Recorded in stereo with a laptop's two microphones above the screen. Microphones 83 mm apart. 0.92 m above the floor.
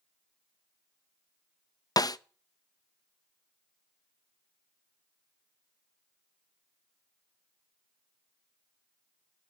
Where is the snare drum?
50° left (ahead or behind), 0.5 m.